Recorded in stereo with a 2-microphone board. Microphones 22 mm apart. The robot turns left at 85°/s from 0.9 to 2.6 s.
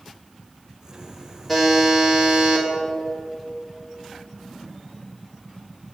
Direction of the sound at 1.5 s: 5° left.